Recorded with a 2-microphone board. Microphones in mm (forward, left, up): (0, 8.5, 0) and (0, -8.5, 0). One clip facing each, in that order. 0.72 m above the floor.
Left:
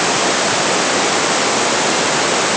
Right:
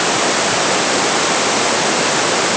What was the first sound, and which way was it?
Only background noise.